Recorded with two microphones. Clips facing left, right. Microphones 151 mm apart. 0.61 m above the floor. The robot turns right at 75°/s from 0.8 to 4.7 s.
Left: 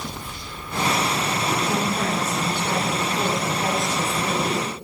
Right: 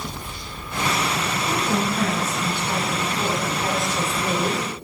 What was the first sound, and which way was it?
A woman speaking, straight ahead.